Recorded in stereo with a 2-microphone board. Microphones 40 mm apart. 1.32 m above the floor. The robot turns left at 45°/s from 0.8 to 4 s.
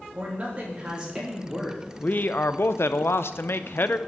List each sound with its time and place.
0.1 s a man speaking: 140° right, 3 m; by 1.8 s 175° left, 3 m
2.0 s a man speaking: 140° left, 0.5 m; by 4.0 s 50° left, 0.5 m